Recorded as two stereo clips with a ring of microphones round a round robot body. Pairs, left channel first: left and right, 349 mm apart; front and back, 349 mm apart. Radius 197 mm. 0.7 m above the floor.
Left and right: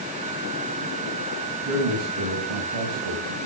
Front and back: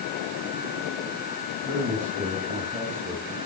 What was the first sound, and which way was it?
A man speaking, 95° right.